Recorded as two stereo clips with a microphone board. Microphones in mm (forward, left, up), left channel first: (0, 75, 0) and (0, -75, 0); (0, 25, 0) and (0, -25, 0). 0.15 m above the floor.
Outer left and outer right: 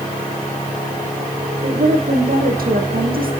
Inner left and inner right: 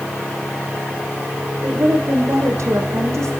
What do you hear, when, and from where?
1.6 s a woman speaking: 75° right (ahead or behind), 5.5 m